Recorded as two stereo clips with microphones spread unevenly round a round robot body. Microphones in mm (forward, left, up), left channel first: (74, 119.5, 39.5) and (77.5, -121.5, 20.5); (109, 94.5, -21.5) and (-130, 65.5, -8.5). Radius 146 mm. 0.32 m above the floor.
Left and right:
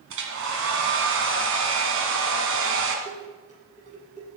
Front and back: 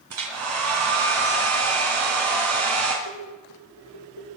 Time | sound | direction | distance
0.1 | a hair dryer | 130° right | 2.5 m
3.0 | dishes clattering | 30° right | 7.5 m